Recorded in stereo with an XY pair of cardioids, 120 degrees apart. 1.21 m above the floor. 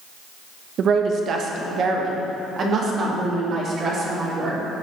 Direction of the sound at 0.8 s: 55° right.